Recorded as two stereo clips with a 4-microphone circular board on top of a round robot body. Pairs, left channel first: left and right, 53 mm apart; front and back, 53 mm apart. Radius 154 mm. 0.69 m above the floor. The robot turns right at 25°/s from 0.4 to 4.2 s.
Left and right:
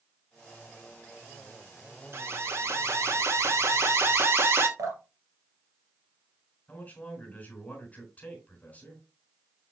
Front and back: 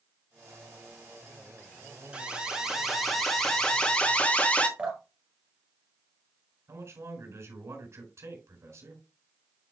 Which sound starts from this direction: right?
Dripping, at 4.8 s.